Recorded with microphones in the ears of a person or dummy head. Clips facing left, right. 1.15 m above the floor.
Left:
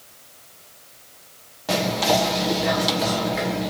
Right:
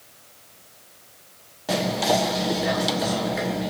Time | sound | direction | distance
1.7 | whispering | 5° right (ahead or behind) | 0.5 m